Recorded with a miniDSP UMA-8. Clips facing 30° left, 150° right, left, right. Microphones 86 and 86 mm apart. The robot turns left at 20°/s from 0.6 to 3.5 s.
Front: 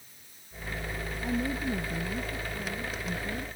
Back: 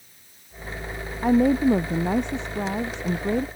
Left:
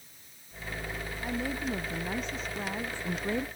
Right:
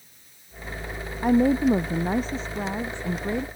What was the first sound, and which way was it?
A woman speaking, 125° right.